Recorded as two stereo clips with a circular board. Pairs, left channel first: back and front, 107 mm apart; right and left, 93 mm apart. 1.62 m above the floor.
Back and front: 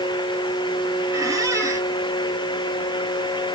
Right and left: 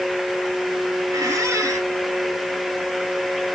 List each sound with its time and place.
1.1 s a squeak: 50° left, 1.3 m